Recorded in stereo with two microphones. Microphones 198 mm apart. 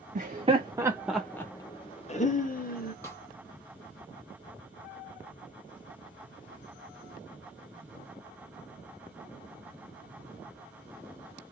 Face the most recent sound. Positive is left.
turn(degrees=15)  # may be behind; listen again after turning